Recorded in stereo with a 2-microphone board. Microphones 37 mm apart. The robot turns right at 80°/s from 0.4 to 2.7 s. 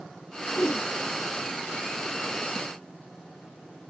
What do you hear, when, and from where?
0.5 s a whoosh: 80° left, 1.0 m; by 0.9 s 110° left, 1.0 m